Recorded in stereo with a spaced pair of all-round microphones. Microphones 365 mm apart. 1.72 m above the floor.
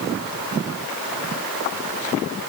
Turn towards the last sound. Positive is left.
No sound to turn to.